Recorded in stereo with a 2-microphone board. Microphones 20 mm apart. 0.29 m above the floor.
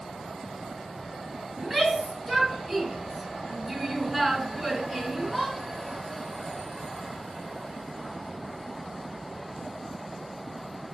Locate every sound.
1.6 s a shout: 5° right (ahead or behind), 3.5 m